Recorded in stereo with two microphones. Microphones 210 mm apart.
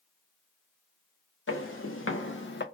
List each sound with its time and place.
1.5 s footsteps: 85° left, 1.7 m; by 2.6 s 55° left (ahead or behind), 0.7 m